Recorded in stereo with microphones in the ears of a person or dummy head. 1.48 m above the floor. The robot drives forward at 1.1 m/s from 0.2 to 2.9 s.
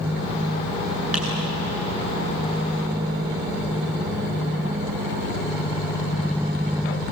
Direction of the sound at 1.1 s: 5° right (ahead or behind).